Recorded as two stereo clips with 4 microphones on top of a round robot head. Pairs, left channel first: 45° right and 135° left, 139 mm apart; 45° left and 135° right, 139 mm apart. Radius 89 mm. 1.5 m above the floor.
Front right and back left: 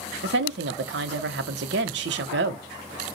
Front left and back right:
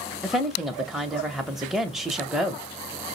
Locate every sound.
0.2 s a woman speaking: 135° left, 0.8 m